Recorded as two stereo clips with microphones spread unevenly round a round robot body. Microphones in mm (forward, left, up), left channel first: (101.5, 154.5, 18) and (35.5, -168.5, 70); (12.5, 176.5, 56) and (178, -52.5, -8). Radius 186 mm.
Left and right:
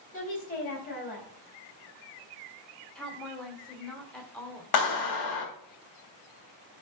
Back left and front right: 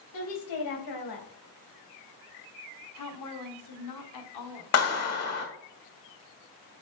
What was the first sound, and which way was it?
A woman speaking, 145° left.